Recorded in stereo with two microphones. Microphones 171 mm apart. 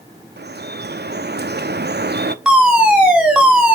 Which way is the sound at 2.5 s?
5° right (ahead or behind).